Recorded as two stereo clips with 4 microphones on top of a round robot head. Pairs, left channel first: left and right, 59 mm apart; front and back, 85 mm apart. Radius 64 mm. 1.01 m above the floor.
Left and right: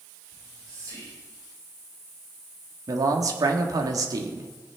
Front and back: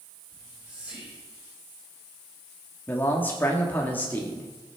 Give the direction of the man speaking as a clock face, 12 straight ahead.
2 o'clock.